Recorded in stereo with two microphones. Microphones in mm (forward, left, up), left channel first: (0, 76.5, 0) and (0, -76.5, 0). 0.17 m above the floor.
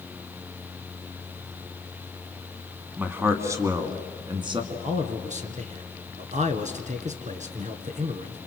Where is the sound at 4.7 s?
55° right (ahead or behind), 1.8 m.